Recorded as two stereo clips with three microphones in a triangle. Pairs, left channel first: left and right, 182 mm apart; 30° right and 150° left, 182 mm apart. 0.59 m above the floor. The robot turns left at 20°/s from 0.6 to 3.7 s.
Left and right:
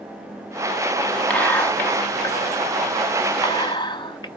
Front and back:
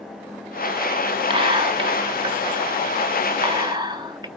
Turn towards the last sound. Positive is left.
turn(degrees=115)